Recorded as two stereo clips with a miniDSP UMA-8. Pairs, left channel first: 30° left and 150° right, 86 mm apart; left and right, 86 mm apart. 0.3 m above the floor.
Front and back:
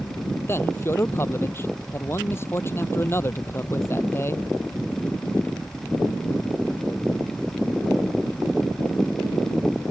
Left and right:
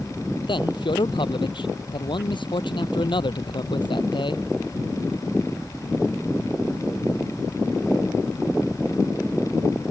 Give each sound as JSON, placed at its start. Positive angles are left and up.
{"t": 0.5, "sound": "a man speaking", "azimuth_deg": 90}